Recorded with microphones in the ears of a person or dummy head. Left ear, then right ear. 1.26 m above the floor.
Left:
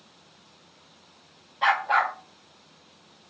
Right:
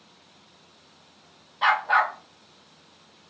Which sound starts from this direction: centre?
A dog barking, at 1.6 s.